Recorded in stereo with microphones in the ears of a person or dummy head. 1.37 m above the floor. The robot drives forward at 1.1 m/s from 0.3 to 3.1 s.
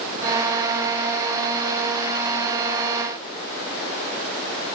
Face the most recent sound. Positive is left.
No sound to turn to.